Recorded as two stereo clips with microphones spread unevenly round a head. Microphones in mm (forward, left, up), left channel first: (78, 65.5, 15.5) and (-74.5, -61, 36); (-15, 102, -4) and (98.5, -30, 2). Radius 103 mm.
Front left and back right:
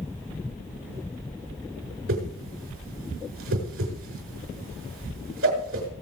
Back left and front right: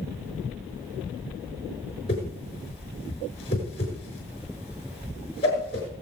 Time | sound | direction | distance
2.1 | a whoosh | 165° right | 5.5 m